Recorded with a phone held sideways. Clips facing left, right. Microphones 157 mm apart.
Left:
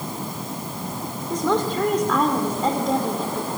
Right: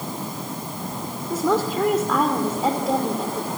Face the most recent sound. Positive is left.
turn(degrees=-5)  # may be behind; listen again after turning